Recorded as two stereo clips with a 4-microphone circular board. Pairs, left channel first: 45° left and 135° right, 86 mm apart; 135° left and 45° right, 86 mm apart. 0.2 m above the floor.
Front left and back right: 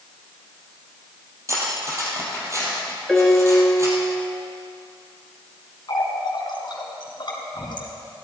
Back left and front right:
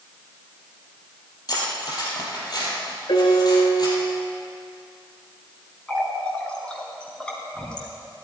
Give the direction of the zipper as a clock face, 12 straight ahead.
No zipper in this recording.